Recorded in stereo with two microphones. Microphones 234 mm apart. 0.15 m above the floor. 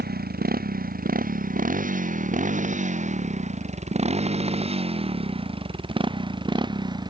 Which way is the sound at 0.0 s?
40° right (ahead or behind).